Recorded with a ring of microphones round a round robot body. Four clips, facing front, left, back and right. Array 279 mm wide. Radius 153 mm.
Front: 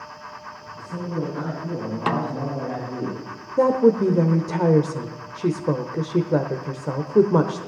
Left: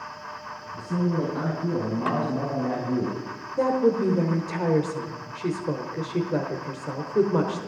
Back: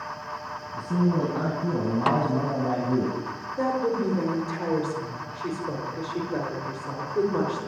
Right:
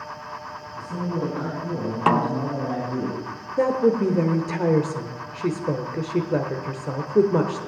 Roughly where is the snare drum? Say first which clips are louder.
Right 9 dB, even; right.